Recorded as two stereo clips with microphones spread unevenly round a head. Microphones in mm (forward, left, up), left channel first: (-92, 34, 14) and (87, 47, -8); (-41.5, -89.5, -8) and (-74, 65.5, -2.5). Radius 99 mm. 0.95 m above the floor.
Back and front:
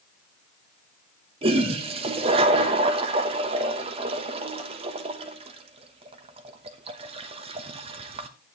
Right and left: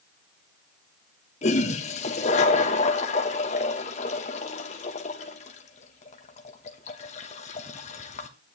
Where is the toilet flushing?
40° right, 1.0 m.